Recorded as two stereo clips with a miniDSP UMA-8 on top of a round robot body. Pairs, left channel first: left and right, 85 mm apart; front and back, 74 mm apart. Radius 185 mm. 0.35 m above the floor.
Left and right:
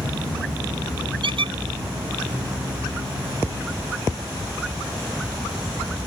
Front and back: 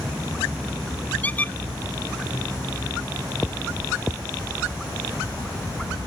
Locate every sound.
1.2 s a squeak: 70° right